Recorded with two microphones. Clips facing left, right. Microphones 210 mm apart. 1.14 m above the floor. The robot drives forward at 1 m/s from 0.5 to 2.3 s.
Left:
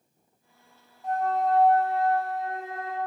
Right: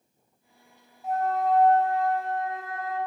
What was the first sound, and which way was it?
A flute, 5° right (ahead or behind).